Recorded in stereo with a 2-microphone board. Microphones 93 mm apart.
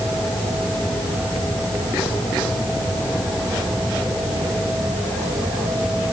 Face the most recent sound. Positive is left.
No sound to turn to.